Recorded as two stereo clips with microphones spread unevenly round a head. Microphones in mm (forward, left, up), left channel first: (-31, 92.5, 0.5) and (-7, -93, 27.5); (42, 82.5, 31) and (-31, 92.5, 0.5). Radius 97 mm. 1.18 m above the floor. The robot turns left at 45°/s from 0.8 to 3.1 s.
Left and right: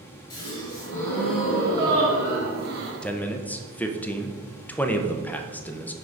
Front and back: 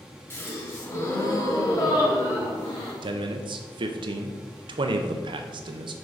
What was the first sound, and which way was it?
A gasp, 30° left.